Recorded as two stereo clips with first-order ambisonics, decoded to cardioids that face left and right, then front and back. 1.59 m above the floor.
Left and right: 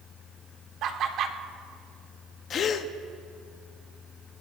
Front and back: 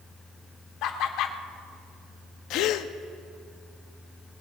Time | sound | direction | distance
0.8 | laughter | 40° right | 1.2 m
2.5 | a gasp | 35° left | 0.6 m